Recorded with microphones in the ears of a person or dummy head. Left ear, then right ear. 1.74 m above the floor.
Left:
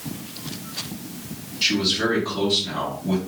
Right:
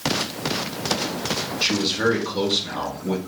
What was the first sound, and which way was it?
A man speaking, 15° right (ahead or behind).